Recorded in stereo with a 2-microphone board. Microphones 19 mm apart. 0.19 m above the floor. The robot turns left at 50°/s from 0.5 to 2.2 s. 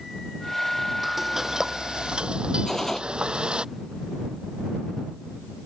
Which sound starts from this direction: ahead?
Frying, at 1.0 s.